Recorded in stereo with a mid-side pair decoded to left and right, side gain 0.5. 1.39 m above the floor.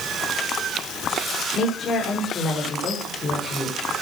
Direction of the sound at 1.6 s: 45° left.